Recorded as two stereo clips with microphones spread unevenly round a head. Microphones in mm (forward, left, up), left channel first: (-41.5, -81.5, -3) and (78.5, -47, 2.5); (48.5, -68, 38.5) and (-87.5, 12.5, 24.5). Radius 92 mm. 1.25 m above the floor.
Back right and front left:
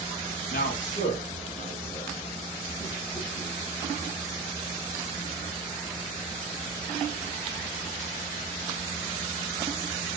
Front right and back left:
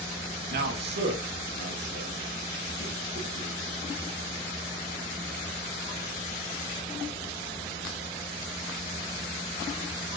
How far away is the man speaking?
About 1.5 m.